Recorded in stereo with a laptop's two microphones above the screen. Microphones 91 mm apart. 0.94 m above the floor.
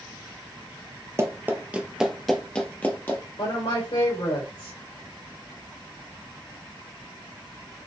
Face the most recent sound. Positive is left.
turn(degrees=75)  # may be behind; listen again after turning